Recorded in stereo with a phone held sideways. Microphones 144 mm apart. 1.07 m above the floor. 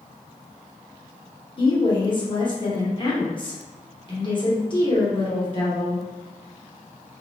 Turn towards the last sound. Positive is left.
turn(degrees=35)  # may be behind; listen again after turning